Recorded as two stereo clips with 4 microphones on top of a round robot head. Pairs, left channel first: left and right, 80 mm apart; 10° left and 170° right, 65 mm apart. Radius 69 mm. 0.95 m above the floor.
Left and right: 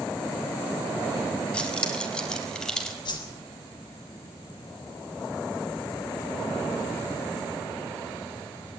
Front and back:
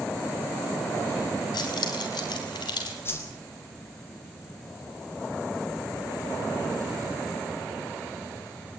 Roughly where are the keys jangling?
Ahead.